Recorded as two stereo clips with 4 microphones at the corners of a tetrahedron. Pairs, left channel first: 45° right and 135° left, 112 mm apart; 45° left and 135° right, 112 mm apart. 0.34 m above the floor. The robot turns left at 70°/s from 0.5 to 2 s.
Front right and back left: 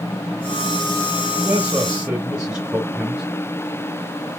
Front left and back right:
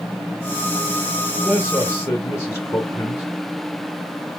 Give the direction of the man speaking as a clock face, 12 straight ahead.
9 o'clock.